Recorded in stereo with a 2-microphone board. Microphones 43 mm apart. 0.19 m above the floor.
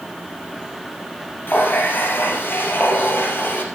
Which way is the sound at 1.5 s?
55° left (ahead or behind).